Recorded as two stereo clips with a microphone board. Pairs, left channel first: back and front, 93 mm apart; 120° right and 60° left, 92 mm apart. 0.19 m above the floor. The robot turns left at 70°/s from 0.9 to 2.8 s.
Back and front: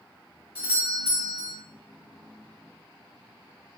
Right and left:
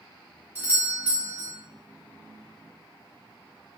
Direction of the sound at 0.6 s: 40° left.